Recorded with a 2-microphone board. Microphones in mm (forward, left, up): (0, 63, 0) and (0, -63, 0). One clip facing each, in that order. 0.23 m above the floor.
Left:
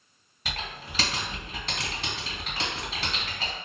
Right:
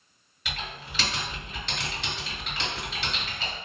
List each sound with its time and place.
0.5 s typing on a keyboard: 35° left (ahead or behind), 1.9 m